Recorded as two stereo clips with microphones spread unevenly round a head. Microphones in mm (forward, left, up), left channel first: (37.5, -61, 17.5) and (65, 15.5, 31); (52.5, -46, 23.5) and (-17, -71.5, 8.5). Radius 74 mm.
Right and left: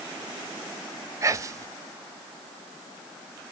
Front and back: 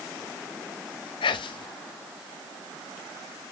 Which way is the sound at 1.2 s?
15° left.